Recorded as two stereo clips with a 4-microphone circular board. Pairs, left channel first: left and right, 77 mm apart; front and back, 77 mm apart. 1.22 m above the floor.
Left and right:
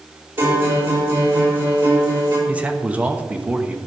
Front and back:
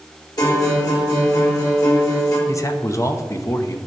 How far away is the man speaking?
About 0.8 m.